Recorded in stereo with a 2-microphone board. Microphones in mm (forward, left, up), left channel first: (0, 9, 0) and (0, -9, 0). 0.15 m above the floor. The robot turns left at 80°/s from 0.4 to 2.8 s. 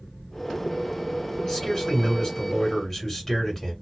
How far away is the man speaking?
About 1.7 m.